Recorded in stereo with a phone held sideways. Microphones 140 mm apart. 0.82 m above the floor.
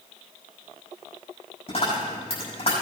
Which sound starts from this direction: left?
A dropped coin, at 1.7 s.